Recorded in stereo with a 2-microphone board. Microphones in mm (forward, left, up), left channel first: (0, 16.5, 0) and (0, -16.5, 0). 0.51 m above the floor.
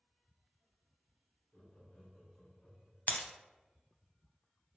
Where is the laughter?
50° left (ahead or behind), 1.5 m; by 3.0 s 55° left (ahead or behind), 1.6 m.